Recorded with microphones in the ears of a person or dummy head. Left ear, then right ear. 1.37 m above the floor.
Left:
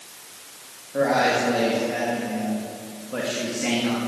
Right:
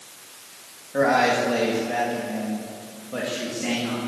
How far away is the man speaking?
About 2 m.